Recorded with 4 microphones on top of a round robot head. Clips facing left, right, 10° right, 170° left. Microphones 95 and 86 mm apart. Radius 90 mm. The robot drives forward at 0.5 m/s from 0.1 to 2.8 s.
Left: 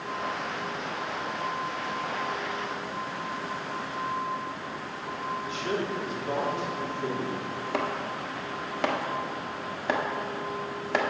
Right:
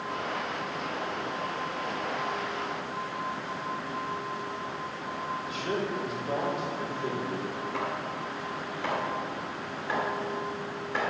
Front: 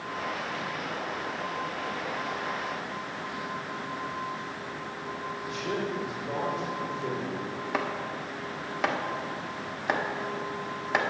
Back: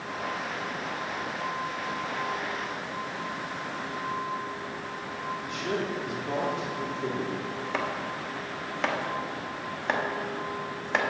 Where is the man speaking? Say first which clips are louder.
Left 1 dB, even; 150° left, 3.5 m.